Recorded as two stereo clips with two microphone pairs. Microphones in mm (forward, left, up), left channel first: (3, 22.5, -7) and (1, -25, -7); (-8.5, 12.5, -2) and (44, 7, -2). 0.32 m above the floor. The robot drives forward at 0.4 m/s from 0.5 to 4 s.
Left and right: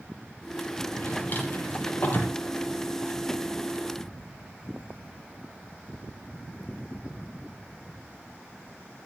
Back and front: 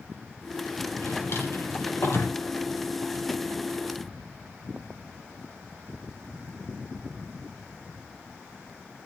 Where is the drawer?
135° left, 5 m; by 2.4 s 140° left, 5.5 m.